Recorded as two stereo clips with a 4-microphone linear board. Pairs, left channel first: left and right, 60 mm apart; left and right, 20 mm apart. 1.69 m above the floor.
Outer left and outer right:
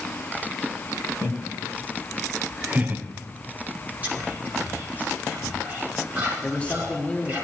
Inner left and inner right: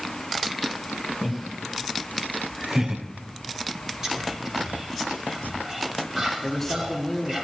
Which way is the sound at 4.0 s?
30° right (ahead or behind).